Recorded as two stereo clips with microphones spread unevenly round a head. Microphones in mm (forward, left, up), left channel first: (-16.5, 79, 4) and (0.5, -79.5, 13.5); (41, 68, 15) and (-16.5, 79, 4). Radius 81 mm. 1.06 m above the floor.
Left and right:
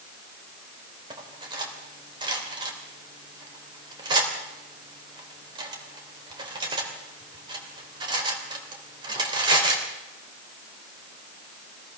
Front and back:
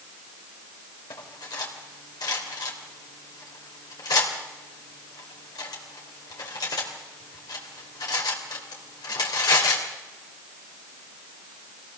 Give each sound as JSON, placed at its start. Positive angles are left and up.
{"t": 1.1, "sound": "cutlery clinking", "azimuth_deg": -20, "distance_m": 3.0}